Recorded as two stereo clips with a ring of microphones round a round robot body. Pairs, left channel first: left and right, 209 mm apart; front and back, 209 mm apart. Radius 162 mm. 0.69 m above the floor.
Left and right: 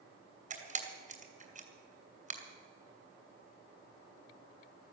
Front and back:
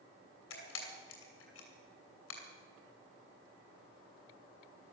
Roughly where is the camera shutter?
Ahead right.